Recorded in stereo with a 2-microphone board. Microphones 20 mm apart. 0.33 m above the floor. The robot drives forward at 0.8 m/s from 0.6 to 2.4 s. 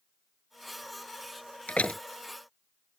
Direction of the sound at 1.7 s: 80° left.